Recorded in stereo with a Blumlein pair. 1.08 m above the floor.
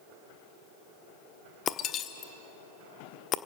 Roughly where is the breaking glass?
Ahead left.